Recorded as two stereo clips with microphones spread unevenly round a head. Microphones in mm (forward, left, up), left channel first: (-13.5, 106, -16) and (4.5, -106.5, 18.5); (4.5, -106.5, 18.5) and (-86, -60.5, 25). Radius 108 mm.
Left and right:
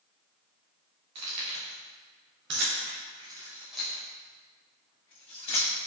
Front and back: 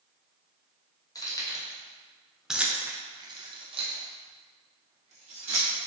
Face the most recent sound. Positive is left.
turn(degrees=155)